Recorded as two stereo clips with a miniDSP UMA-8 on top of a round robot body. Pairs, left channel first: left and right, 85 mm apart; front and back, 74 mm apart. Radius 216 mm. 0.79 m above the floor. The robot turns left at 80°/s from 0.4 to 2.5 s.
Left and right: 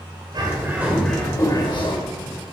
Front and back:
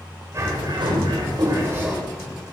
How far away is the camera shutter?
I don't hear a camera shutter.